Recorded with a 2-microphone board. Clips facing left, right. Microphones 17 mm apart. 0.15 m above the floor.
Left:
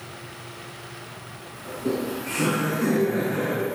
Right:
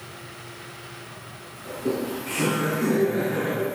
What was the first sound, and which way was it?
Laughter, 15° left (ahead or behind).